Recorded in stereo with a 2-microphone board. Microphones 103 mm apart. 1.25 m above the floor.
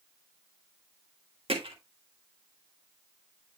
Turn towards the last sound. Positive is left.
turn(degrees=-60)  # may be behind; listen again after turning